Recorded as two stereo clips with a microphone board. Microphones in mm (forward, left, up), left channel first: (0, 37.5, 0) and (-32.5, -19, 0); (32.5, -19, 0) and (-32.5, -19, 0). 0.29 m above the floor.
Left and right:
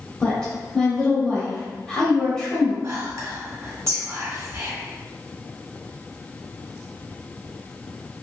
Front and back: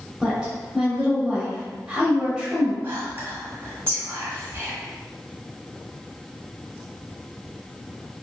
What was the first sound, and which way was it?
A woman speaking, 125° left.